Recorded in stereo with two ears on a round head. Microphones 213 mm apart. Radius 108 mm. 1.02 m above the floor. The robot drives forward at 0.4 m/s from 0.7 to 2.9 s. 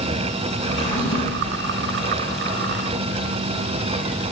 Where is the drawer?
55° left (ahead or behind), 3.5 m; by 1.6 s 60° left (ahead or behind), 3 m.